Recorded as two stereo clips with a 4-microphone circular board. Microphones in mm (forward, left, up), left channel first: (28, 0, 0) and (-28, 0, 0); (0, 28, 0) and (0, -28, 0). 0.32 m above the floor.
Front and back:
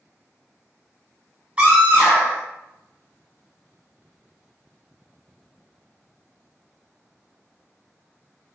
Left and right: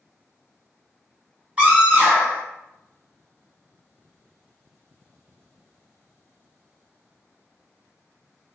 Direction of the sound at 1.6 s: 135° right.